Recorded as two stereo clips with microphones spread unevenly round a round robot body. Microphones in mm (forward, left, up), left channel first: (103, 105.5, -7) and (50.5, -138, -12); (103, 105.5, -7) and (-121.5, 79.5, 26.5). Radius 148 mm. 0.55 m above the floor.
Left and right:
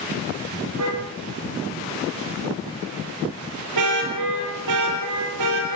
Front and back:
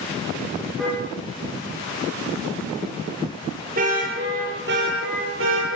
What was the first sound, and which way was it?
A car horn, 80° right.